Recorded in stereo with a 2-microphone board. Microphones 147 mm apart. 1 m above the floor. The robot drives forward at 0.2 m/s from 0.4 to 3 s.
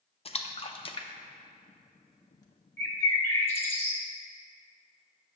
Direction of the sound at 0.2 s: 40° left (ahead or behind).